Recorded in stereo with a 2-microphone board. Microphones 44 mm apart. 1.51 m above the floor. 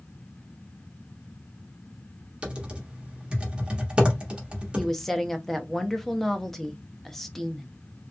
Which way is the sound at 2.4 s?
25° right (ahead or behind).